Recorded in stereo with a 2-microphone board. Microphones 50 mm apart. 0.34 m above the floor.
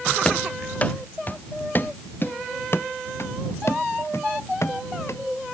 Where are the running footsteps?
20° left (ahead or behind); by 5.2 s 70° left (ahead or behind).